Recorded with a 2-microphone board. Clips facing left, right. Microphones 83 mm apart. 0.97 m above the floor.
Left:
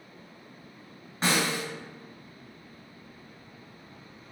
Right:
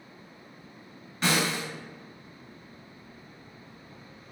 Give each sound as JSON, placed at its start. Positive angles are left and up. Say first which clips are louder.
{"t": 1.2, "sound": "a snare drum", "louder": "even", "side_deg": 35, "distance_m": 1.7}